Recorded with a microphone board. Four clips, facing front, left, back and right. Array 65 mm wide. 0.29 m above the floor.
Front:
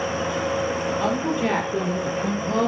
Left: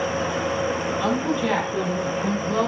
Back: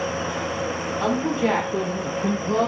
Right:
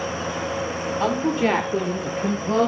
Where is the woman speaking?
90° right, 6.5 m; by 2.7 s 85° right, 5 m.